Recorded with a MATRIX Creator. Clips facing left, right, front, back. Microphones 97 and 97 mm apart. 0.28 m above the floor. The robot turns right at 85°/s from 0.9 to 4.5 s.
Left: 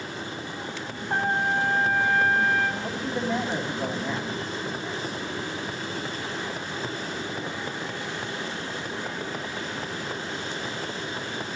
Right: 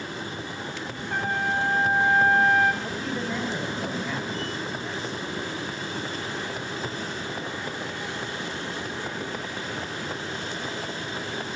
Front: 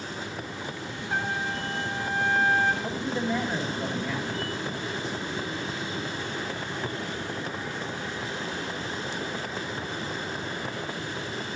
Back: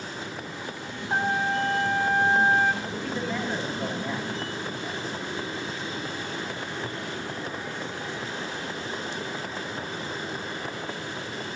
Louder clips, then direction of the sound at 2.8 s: Left 2 dB, front 2 dB; 25° left.